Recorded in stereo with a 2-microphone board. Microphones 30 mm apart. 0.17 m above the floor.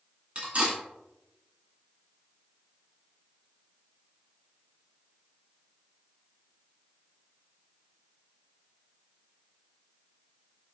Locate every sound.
0.3 s cutlery clinking: 40° right (ahead or behind), 0.9 m